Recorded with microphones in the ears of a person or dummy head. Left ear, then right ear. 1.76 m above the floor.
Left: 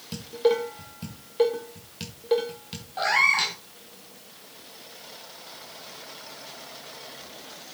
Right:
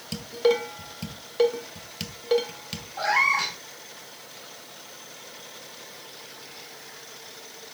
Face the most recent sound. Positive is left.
turn(degrees=20)  # may be behind; listen again after turning